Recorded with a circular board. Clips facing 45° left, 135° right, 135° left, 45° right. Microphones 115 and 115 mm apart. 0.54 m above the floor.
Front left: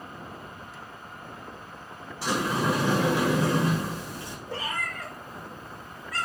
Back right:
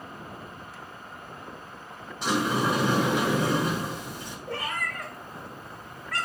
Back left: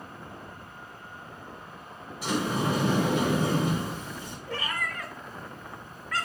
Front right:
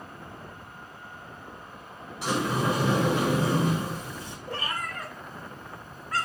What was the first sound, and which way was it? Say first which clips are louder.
A sliding door: back right 1 dB, front right 1 dB; 65° right.